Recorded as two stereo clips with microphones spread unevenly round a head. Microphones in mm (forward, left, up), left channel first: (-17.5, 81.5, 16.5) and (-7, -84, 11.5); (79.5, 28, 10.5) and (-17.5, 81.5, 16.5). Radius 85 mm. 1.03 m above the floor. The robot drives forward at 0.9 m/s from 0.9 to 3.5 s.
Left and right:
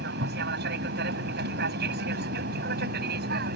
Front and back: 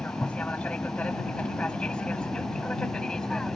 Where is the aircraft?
110° right; by 3.6 s 115° right.